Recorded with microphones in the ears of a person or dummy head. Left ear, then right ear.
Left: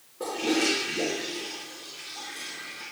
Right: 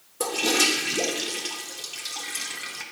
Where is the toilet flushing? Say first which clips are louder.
Right 4 dB; 85° right, 1.2 m.